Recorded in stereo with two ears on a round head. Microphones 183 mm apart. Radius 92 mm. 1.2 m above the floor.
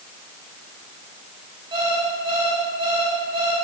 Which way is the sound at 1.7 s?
25° right (ahead or behind).